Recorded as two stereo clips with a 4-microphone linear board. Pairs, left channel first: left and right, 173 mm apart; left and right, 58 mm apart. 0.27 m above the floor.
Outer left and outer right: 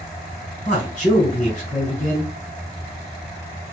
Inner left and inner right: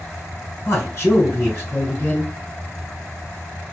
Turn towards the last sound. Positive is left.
turn(degrees=50)  # may be behind; listen again after turning